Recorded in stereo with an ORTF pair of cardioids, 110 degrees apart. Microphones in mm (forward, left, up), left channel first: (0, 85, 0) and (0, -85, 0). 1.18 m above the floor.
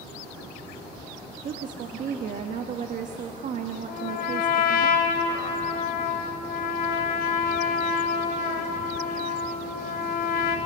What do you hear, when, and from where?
1.4 s a woman speaking: 50° right, 1.4 m
3.9 s a trumpet: 70° left, 2.5 m